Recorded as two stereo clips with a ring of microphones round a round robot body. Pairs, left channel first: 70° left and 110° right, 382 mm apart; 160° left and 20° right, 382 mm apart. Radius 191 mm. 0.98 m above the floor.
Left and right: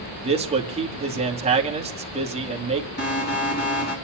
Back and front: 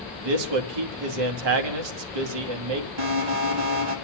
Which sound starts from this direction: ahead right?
A man speaking, at 0.2 s.